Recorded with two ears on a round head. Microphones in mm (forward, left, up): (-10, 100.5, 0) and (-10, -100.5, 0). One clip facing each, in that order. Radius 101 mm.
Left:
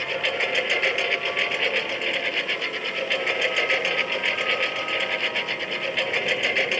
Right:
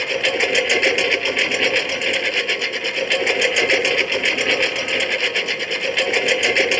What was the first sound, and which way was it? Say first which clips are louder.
A lawn mower: right 7 dB; 65° right (ahead or behind).